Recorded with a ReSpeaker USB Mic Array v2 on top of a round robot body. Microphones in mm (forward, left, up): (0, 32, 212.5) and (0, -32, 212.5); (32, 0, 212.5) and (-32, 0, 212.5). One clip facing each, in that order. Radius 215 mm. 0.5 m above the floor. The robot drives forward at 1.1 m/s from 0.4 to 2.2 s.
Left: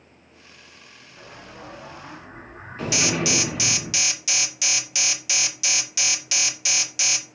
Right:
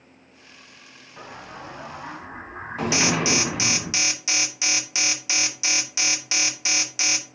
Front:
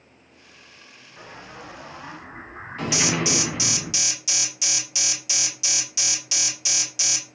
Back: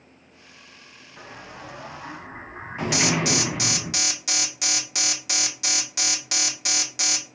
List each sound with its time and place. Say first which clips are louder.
1.2 s an explosion: right 4 dB, even; 90° right, 3.5 m; by 3.9 s 110° right, 3.5 m
2.9 s an alarm: right 1 dB, back 1 dB; 155° right, 2.5 m